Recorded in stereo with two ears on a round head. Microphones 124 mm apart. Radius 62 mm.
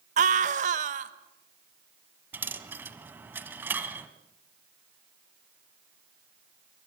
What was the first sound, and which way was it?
A scream, 55° right (ahead or behind).